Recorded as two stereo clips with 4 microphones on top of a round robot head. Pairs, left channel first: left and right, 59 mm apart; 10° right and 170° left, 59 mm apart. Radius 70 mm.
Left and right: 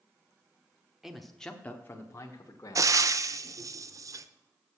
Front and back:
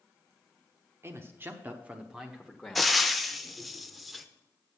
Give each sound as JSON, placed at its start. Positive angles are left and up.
{"t": 1.0, "sound": "a man speaking", "azimuth_deg": -170, "distance_m": 1.0}
{"t": 2.8, "sound": "frying", "azimuth_deg": -100, "distance_m": 0.6}